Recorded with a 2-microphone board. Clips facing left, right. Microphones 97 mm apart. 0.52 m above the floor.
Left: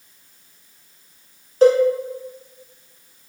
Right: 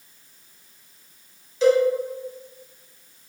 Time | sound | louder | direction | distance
1.6 | a cowbell | left 4 dB | 50° left (ahead or behind) | 1.6 m